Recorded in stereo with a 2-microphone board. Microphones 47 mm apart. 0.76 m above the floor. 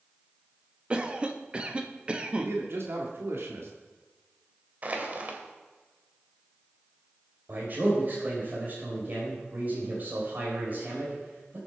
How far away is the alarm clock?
No alarm clock in this recording.